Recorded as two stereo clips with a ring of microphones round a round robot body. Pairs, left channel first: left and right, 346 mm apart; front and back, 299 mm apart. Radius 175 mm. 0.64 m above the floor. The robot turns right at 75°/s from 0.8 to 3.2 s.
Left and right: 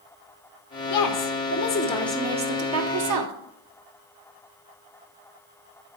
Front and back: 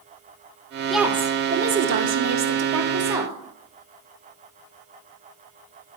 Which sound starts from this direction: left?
A woman speaking, at 0.9 s.